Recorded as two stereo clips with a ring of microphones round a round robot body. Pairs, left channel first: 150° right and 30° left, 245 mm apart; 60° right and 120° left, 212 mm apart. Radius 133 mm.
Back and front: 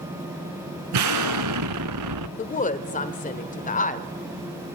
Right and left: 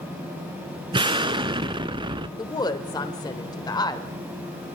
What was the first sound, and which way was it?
An explosion, 50° left.